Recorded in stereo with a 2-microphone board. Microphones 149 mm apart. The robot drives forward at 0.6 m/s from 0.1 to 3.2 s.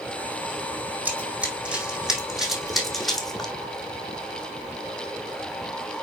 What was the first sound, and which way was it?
Running footsteps, 10° right (ahead or behind).